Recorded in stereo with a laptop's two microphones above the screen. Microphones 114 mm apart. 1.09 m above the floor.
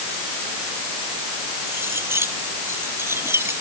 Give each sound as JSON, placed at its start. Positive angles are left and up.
{"t": 1.7, "sound": "cutlery clinking", "side_deg": -20}